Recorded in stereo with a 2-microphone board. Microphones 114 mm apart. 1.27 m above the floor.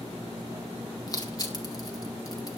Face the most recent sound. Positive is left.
turn(degrees=35)  # may be behind; listen again after turning